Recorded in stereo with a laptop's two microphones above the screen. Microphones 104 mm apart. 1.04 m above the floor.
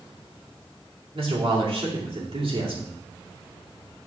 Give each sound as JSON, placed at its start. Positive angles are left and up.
{"t": 1.1, "sound": "a man speaking", "side_deg": -60, "distance_m": 2.5}